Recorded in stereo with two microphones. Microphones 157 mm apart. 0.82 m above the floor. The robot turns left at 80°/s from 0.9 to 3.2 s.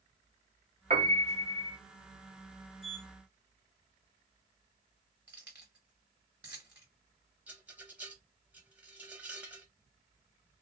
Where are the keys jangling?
15° right (ahead or behind), 1.7 m.